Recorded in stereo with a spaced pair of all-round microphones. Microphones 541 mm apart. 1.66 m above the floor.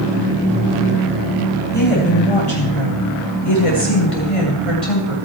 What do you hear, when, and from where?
1.7 s a woman speaking: 70° left (ahead or behind), 9 m; by 5.2 s 85° left, 8 m